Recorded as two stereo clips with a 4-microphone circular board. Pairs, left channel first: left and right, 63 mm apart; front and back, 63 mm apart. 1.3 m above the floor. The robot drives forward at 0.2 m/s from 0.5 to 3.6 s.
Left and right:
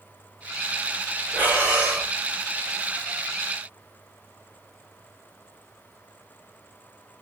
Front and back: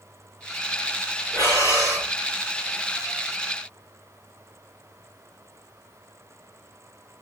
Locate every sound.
1.3 s breathing: 150° right, 3 m; by 2.1 s 155° right, 3 m